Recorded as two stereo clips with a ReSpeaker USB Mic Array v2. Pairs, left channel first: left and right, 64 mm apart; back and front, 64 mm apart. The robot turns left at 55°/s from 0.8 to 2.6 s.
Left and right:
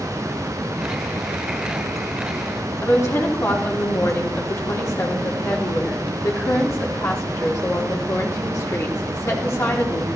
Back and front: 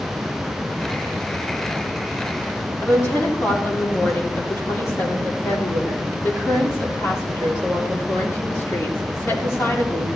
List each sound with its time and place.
2.8 s a woman speaking: 130° left, 3.5 m